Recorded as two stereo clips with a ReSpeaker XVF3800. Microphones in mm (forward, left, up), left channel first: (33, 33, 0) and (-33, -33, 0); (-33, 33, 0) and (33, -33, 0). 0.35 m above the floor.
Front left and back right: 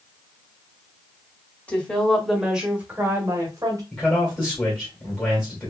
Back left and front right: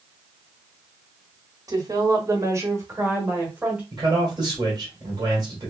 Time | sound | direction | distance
1.7 | a woman speaking | 25° right | 1.3 m
3.9 | a man speaking | 20° right | 1.8 m